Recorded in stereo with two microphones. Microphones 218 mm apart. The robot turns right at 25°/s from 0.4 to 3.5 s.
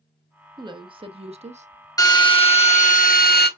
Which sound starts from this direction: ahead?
A drill, at 2.0 s.